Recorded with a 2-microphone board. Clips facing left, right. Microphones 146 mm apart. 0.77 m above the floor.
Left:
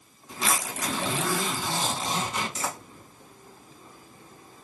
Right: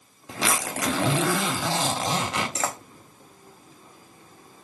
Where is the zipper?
85° right, 0.8 m.